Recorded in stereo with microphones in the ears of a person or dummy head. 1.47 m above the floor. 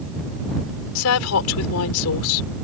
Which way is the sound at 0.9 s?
85° left.